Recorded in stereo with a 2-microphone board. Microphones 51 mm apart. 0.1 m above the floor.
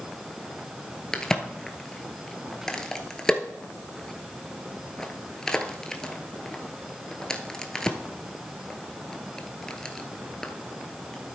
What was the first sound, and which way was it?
A crack, 15° left (ahead or behind).